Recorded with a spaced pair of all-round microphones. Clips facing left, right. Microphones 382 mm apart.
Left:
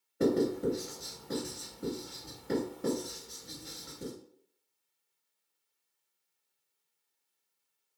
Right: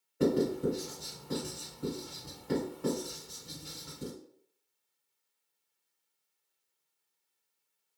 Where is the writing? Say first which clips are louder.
Even; centre (ahead or behind), 1.9 m.